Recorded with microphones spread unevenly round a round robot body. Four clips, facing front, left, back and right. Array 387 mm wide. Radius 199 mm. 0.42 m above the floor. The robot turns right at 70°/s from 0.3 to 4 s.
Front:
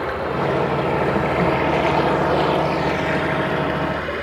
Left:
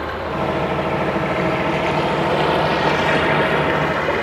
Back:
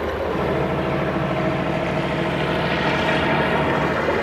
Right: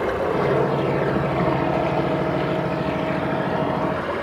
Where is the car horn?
I don't hear a car horn.